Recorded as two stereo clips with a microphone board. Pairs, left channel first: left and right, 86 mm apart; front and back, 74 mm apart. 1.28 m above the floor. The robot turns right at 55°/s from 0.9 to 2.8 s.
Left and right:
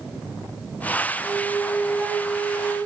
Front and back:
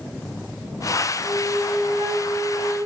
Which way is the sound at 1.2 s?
130° left.